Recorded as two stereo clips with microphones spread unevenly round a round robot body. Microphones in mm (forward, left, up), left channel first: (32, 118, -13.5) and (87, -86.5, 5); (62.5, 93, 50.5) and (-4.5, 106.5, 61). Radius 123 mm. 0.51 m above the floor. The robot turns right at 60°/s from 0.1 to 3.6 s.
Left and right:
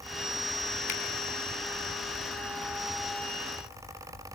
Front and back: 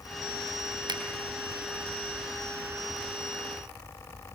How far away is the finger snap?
About 3.5 m.